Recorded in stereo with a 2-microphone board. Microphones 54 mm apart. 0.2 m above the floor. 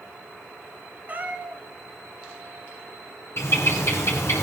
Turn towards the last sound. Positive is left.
turn(degrees=55)  # may be behind; listen again after turning